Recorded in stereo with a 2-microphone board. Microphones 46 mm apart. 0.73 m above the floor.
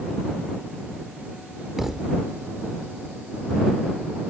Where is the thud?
5° right (ahead or behind).